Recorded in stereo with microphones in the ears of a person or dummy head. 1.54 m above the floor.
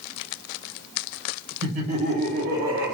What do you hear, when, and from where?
1.6 s laughter: 35° right (ahead or behind), 1.0 m; by 2.9 s 80° right, 0.6 m